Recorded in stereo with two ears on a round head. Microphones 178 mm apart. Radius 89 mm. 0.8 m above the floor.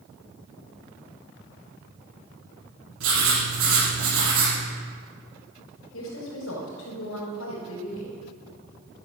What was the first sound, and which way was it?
Writing, 85° right.